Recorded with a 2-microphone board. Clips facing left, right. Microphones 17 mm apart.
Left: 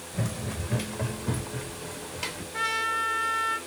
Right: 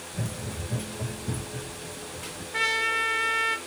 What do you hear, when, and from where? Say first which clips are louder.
0.1 s running footsteps: left 3 dB; 35° left (ahead or behind), 1.0 m; by 2.4 s 85° left, 1.5 m
2.5 s a trumpet: right 3 dB; 45° right (ahead or behind), 1.4 m